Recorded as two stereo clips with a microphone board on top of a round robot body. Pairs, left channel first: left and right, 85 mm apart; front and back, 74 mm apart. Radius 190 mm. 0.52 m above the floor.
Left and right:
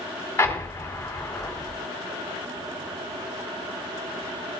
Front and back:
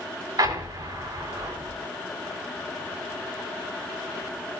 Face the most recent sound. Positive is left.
turn(degrees=150)